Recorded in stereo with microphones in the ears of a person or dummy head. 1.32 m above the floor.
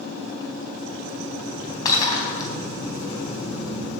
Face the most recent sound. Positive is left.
turn(degrees=25)  # may be behind; listen again after turning